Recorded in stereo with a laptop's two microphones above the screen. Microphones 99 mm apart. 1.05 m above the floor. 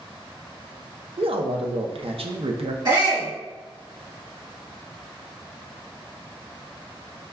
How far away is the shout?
About 1.7 m.